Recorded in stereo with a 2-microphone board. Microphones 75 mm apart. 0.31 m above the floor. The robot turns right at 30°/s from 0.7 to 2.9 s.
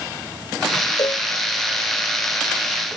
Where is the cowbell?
55° left (ahead or behind); by 1.3 s 45° left (ahead or behind).